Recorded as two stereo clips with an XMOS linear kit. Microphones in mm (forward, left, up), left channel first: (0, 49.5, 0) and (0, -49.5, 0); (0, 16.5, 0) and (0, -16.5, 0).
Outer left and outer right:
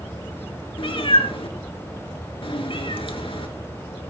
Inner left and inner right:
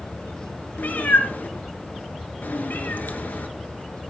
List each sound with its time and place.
0.8 s a cat meowing: 65° left (ahead or behind), 2.5 m